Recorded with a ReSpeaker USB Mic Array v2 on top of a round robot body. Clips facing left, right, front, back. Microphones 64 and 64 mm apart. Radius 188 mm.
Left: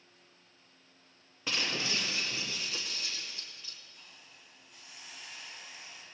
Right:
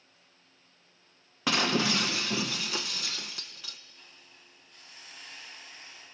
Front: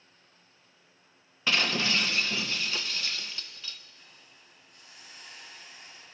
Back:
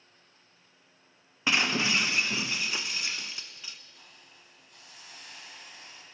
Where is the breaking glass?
105° right, 0.6 m.